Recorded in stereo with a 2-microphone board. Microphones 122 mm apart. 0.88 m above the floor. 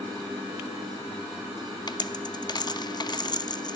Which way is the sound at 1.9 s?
35° left (ahead or behind).